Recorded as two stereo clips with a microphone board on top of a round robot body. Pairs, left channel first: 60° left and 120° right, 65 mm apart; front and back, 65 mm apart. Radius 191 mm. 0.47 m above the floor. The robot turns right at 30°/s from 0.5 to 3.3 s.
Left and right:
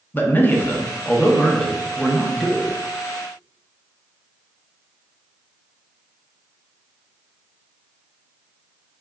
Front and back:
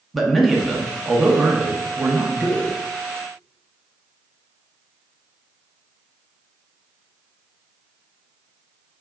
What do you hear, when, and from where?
0.1 s a man speaking: 90° left, 0.8 m; by 2.7 s 155° left, 0.8 m